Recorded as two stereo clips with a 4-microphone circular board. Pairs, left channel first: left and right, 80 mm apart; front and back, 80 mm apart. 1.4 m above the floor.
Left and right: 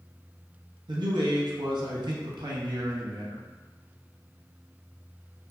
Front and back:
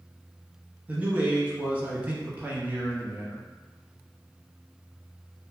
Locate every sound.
0.9 s a man speaking: 110° right, 0.7 m